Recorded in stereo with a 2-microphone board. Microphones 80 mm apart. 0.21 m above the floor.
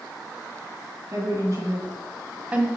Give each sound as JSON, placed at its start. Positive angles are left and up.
{"t": 1.1, "sound": "a woman speaking", "side_deg": -45, "distance_m": 2.5}